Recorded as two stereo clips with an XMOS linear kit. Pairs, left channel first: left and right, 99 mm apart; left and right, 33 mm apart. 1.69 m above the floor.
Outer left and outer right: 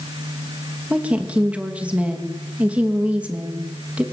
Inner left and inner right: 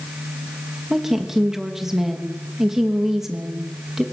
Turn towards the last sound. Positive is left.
turn(degrees=-15)  # may be behind; listen again after turning